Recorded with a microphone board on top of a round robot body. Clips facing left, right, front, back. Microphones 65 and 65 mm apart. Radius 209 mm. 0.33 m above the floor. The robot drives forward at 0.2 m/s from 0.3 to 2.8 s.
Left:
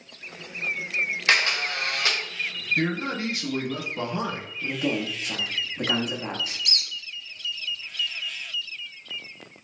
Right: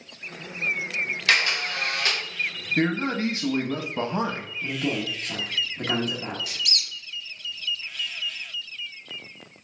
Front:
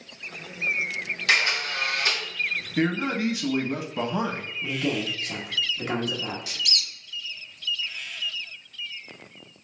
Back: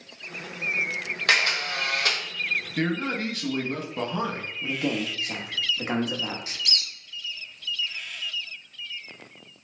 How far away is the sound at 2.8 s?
About 1.0 m.